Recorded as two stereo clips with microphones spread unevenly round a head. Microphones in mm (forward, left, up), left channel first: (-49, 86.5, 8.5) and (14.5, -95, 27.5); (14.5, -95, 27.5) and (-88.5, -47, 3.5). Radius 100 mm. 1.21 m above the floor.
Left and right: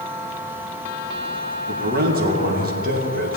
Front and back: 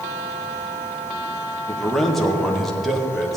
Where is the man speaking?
115° right, 1.7 m.